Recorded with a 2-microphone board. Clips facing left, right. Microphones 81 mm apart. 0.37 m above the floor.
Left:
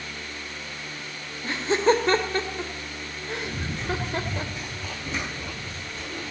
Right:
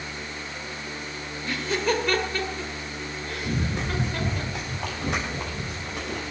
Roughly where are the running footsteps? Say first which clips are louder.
Right 4 dB; right.